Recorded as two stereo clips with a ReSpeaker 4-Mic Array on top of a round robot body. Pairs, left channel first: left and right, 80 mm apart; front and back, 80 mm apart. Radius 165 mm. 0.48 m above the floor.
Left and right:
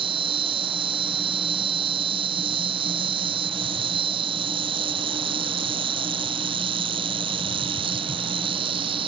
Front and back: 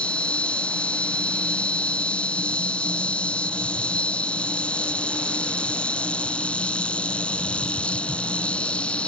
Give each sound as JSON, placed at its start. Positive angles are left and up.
{"t": 0.0, "sound": "an insect", "azimuth_deg": -75}